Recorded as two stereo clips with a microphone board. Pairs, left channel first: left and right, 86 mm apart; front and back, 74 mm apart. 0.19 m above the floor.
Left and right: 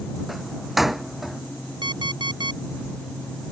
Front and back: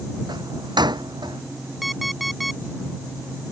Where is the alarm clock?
90° right.